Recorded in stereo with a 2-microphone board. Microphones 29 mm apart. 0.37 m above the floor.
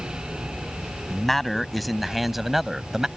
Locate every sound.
1.1 s a man speaking: 10° left (ahead or behind); by 3.1 s 15° right (ahead or behind)